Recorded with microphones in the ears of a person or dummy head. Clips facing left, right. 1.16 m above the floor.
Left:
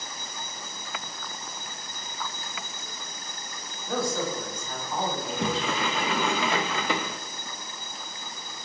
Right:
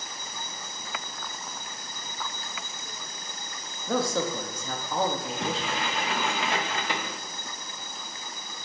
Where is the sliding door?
65° left (ahead or behind), 0.5 m.